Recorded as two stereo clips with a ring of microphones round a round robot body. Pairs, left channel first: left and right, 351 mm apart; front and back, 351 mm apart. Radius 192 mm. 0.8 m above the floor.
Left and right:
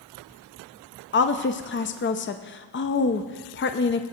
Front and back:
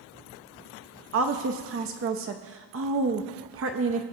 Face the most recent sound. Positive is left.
turn(degrees=140)